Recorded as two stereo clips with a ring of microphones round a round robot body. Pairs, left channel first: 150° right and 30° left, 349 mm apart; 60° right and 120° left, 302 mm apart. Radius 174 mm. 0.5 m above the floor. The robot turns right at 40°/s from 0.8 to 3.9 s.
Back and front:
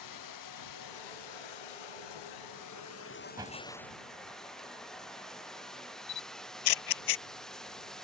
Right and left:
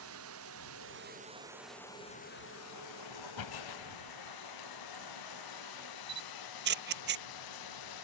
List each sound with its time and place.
0.0 s running water: 175° left; by 8.0 s 60° right
3.4 s a door slam: 50° right; by 4.0 s 30° right
6.1 s a camera shutter: 175° right